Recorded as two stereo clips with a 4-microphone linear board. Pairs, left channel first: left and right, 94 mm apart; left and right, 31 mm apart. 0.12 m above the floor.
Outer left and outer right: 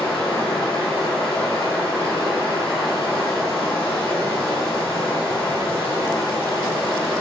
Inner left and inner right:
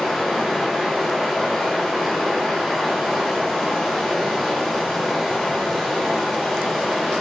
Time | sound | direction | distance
0.0 | running water | 5° left (ahead or behind) | 1.3 m